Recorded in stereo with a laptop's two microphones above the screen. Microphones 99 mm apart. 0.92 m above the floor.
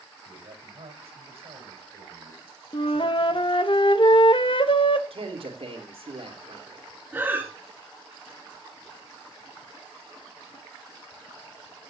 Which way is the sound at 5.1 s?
70° right (ahead or behind).